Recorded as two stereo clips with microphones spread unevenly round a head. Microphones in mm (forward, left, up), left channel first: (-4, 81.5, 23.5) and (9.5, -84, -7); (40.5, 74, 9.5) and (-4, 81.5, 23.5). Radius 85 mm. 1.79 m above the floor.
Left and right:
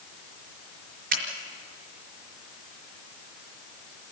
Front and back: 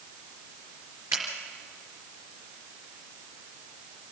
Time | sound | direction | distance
1.1 | a finger snap | 120° right | 4 m